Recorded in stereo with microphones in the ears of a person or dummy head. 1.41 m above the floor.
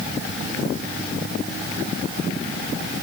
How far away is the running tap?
I don't hear a running tap.